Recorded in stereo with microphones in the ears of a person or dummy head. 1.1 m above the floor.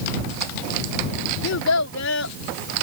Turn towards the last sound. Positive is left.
turn(degrees=75)  # may be behind; listen again after turning